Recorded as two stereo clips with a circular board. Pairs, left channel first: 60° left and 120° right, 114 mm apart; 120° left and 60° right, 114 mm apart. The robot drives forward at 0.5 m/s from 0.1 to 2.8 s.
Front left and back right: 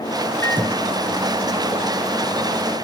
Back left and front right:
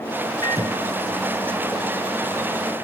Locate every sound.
0.4 s a microwave: 105° left, 1.5 m; by 2.8 s 150° left, 2 m